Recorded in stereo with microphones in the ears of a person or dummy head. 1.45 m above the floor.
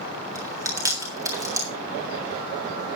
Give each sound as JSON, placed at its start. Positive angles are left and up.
{"t": 0.3, "sound": "chewing", "side_deg": -20, "distance_m": 3.5}